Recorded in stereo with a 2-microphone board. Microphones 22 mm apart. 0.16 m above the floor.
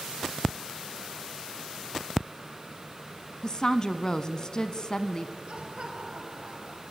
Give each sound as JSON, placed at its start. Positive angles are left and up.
{"t": 3.4, "sound": "a woman speaking", "side_deg": 30, "distance_m": 1.2}
{"t": 5.5, "sound": "laughter", "side_deg": -45, "distance_m": 4.0}